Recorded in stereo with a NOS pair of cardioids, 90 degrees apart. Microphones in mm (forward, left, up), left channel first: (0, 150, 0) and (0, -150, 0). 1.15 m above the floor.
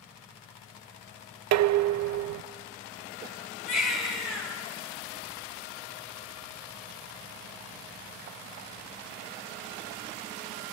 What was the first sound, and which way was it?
Dishes clattering, 70° right.